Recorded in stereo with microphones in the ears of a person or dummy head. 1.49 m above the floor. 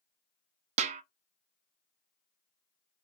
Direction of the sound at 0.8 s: 45° right (ahead or behind).